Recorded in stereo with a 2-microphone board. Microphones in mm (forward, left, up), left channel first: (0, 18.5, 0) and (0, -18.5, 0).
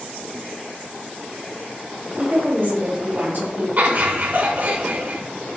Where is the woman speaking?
60° right (ahead or behind), 3.5 m.